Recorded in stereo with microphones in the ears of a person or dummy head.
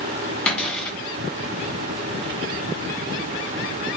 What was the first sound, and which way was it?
A cupboard door, 5° left (ahead or behind).